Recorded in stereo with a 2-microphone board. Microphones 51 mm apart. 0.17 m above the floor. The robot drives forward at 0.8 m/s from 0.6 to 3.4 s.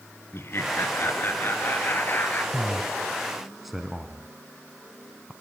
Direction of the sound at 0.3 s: 50° left (ahead or behind).